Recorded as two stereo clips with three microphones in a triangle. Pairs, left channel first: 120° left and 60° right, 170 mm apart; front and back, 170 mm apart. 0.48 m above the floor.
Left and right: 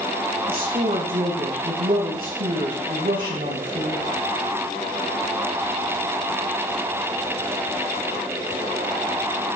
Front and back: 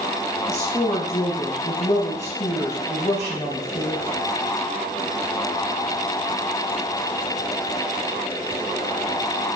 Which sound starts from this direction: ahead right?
A woman speaking, at 0.5 s.